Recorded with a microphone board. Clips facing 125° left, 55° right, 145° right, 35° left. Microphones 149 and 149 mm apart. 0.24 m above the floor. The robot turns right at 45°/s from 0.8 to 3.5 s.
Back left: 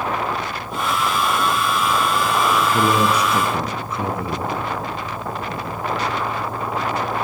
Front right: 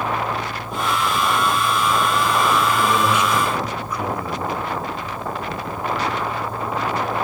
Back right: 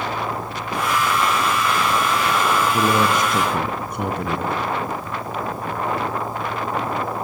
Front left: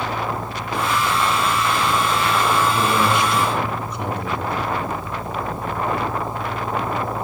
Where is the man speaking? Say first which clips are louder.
Back left 1 dB, back right 1 dB; 155° left, 3 m; by 4.7 s 175° right, 3 m.